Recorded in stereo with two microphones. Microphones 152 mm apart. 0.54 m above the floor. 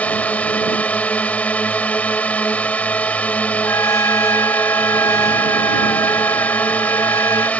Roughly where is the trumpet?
Left.